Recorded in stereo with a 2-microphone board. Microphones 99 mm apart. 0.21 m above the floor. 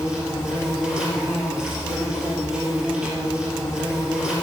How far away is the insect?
About 3 m.